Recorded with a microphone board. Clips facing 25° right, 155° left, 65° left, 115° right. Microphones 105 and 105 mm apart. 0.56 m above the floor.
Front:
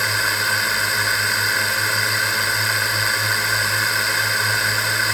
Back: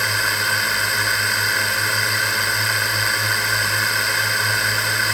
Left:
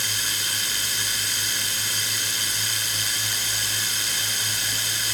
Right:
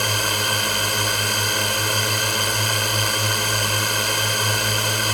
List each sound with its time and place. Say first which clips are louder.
0.0 s a drone: even, right 10 dB; 110° right